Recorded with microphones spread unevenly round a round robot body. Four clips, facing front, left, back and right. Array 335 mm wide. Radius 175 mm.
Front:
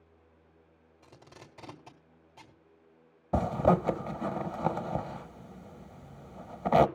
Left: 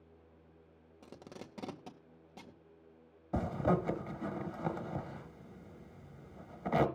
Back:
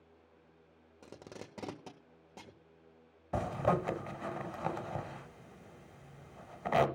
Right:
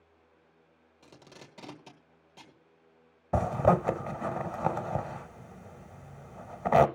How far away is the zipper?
About 1.0 m.